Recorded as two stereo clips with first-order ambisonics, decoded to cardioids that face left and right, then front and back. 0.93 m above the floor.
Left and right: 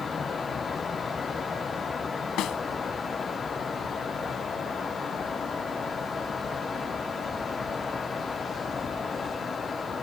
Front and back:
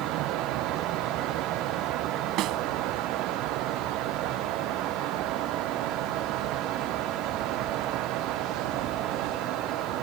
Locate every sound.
2.4 s a snare drum: 135° left